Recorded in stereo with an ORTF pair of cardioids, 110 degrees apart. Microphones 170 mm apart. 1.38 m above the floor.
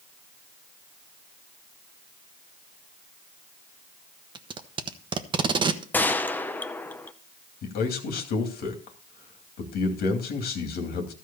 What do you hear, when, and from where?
4.3 s tape being pulled: 30° right, 1.0 m
5.9 s a gunshot: 10° left, 0.7 m
7.6 s a man speaking: 70° left, 2.5 m